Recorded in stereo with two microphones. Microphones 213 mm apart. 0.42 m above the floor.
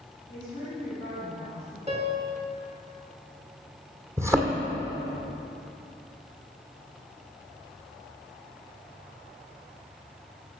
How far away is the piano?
About 1.3 m.